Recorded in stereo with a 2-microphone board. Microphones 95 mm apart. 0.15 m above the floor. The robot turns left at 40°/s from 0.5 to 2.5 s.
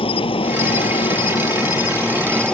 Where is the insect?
90° left; by 2.5 s 10° left.